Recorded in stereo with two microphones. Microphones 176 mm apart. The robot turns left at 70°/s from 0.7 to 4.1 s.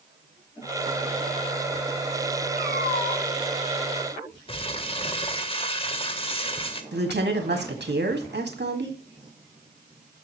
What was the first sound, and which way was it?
A cat meowing, 70° right.